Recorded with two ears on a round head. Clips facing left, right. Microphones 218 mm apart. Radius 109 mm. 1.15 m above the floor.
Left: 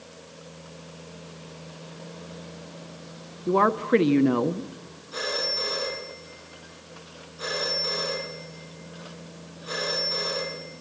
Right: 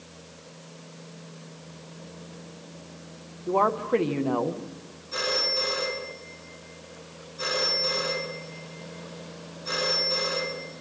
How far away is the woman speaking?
About 1.0 m.